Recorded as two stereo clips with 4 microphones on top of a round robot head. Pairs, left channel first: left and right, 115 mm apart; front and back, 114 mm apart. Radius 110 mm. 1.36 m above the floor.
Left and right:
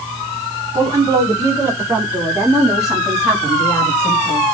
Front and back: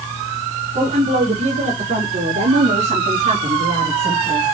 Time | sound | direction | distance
0.7 | a woman speaking | 150° right | 4 m